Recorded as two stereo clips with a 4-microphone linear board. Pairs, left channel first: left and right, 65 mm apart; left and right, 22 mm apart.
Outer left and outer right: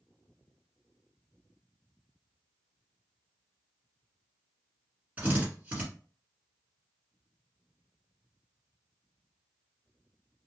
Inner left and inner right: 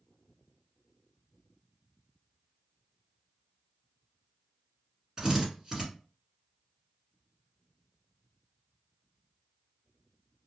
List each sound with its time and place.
5.2 s a drill: 20° right (ahead or behind), 1.5 m